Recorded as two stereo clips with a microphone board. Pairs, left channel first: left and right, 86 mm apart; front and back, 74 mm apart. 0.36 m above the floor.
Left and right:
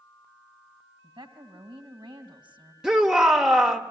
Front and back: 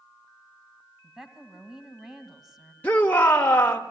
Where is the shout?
25° right, 1.0 m.